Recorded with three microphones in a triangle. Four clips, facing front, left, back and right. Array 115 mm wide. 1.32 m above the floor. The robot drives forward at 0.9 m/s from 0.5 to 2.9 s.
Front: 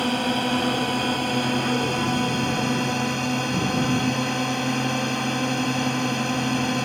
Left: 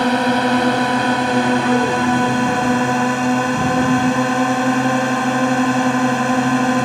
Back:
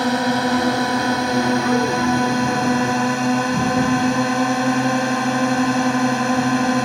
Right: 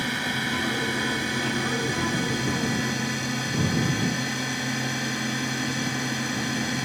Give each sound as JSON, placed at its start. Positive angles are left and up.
{"t": 0.0, "sound": "a drone", "azimuth_deg": 105}